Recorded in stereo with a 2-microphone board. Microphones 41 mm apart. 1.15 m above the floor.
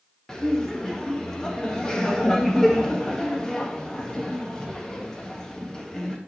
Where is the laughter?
20° left (ahead or behind), 1.7 m.